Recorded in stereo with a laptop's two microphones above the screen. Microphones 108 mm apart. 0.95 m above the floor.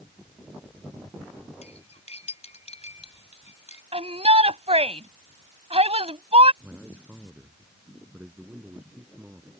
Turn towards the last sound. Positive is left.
turn(degrees=-15)  # may be behind; listen again after turning